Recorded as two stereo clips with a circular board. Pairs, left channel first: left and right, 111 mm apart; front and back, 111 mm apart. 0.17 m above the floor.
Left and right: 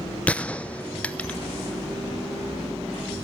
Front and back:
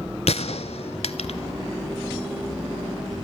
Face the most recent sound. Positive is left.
turn(degrees=10)